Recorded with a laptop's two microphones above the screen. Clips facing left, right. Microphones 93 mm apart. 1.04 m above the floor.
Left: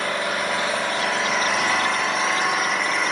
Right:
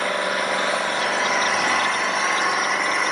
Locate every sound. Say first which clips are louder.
0.0 s an engine running: right 2 dB; centre (ahead or behind), 7 m